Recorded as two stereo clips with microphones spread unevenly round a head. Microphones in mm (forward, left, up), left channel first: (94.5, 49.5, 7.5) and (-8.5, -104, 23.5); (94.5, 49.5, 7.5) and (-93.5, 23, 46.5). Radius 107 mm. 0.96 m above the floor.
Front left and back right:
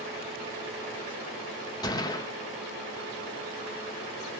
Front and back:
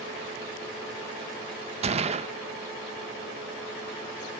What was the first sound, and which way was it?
A gunshot, 125° left.